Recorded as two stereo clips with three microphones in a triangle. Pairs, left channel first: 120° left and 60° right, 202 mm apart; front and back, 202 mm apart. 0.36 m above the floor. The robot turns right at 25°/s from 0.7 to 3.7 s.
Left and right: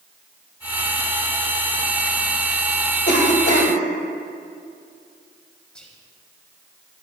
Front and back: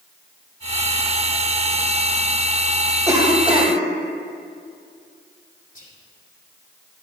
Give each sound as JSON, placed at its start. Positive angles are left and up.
{"t": 3.1, "sound": "a cough", "azimuth_deg": 110, "distance_m": 1.8}
{"t": 5.8, "sound": "whispering", "azimuth_deg": 35, "distance_m": 1.9}